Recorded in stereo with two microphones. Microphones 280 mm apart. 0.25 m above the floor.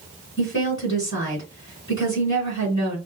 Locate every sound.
0.4 s a woman speaking: 45° left (ahead or behind), 3 m